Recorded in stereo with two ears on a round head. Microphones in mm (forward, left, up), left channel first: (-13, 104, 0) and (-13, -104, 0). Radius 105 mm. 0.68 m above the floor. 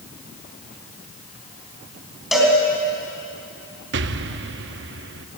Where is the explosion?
50° right (ahead or behind), 0.7 m.